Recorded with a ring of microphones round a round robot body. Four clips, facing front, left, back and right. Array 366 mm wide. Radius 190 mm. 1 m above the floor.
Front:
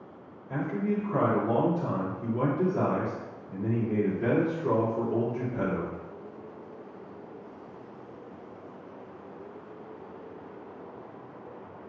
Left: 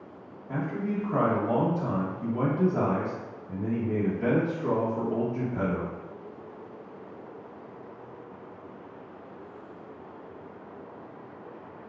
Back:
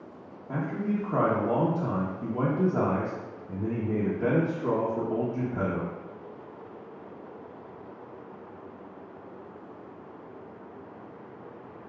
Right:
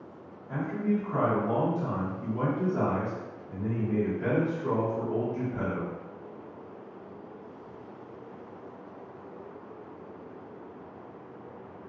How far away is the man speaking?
About 1.0 m.